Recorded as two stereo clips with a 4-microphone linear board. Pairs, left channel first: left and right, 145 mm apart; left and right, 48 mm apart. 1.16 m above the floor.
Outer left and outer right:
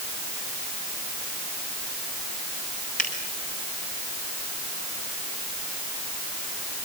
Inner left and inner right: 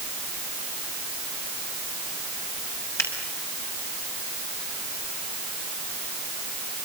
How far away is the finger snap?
About 6.5 m.